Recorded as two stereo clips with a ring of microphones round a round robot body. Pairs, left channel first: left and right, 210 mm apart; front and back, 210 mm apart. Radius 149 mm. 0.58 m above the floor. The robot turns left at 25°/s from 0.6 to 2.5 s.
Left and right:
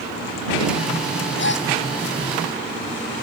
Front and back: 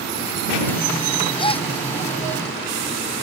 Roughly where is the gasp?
Ahead left.